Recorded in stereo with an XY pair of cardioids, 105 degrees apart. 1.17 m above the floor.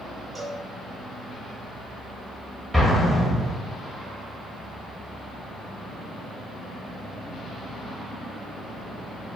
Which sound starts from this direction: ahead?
An explosion, at 2.7 s.